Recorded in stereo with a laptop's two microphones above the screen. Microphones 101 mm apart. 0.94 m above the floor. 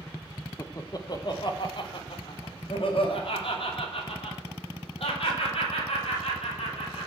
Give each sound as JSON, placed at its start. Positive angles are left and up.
{"t": 0.6, "sound": "laughter", "side_deg": 30, "distance_m": 0.9}